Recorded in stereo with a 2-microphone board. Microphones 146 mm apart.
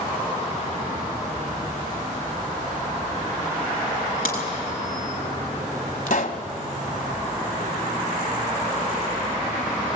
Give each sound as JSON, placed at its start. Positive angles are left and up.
{"t": 4.2, "sound": "a crack", "side_deg": 80, "distance_m": 6.0}
{"t": 6.1, "sound": "a pop", "side_deg": 65, "distance_m": 1.4}